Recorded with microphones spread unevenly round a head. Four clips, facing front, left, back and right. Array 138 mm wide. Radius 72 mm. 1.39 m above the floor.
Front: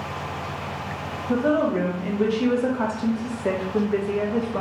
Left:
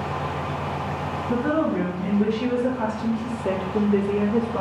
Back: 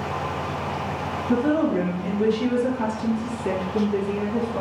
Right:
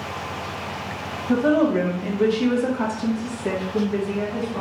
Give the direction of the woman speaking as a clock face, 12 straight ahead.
2 o'clock.